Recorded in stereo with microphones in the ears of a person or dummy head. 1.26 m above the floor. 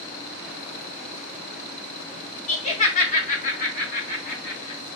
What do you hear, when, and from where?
2.5 s laughter: 35° left (ahead or behind), 0.9 m; by 4.8 s 50° left (ahead or behind), 2 m